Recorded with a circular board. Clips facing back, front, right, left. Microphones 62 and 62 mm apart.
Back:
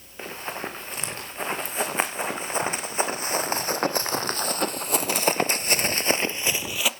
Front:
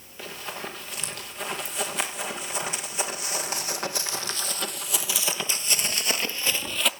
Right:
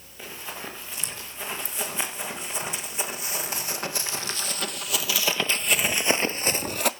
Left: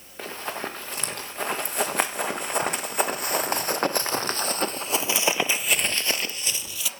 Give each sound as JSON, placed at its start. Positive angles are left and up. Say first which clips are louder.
{"t": 0.2, "sound": "running footsteps", "louder": "back 3 dB, left 6 dB", "azimuth_deg": 120, "distance_m": 3.0}